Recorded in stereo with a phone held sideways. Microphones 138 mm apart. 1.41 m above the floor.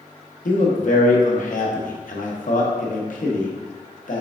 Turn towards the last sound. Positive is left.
turn(degrees=70)  # may be behind; listen again after turning